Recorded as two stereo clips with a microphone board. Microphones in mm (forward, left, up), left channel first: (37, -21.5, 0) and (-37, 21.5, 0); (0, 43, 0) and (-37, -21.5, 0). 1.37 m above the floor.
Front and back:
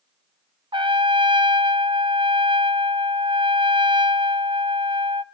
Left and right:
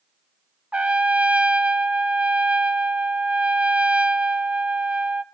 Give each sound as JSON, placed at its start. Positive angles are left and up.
{"t": 0.7, "sound": "a trumpet", "azimuth_deg": 165, "distance_m": 0.8}